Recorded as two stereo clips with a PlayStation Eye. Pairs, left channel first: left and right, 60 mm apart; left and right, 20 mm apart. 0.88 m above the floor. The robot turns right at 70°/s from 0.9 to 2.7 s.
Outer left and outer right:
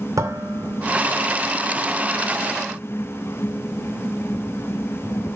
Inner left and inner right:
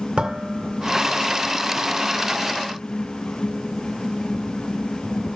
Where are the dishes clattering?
75° right (ahead or behind), 2 m; by 1.1 s 60° right (ahead or behind), 2 m.